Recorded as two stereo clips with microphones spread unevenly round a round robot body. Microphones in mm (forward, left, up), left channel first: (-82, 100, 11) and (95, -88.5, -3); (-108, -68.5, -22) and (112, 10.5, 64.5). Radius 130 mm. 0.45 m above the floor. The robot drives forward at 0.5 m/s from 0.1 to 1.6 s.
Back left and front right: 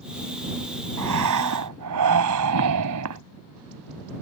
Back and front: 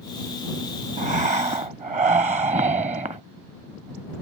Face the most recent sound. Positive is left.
turn(degrees=-45)